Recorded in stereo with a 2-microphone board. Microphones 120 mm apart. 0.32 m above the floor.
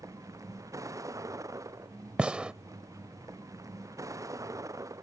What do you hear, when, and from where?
0.0 s a vehicle: 30° right (ahead or behind)
2.2 s a gunshot: 10° right (ahead or behind)